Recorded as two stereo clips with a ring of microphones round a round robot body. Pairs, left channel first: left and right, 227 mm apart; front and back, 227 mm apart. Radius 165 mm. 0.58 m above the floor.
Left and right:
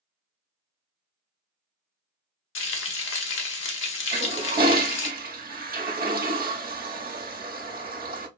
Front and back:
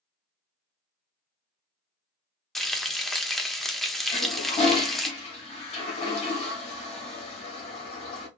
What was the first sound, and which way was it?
Frying, 90° left.